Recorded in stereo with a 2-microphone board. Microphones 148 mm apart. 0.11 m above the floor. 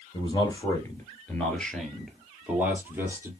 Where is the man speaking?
30° left (ahead or behind), 1.9 m; by 3.3 s 20° right (ahead or behind), 2.5 m.